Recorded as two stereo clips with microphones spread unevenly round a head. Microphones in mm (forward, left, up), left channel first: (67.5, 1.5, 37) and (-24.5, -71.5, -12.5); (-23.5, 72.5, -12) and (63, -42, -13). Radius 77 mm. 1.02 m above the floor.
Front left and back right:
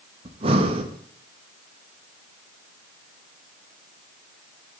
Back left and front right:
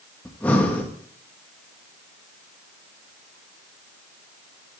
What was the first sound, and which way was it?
Breathing, 155° right.